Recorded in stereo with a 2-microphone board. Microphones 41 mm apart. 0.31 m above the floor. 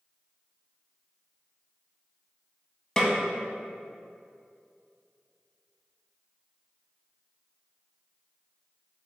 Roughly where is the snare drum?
Left.